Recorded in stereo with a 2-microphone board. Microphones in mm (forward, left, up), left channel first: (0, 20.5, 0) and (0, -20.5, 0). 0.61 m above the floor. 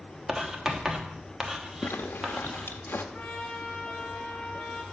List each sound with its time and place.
0.3 s writing: 15° right (ahead or behind), 1.0 m
1.8 s a zipper: 60° left (ahead or behind), 0.8 m
3.1 s a trumpet: 25° left (ahead or behind), 1.1 m